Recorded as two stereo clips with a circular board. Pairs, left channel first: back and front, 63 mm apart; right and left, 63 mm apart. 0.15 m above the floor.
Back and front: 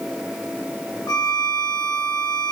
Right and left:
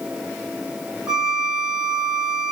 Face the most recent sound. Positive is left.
turn(degrees=165)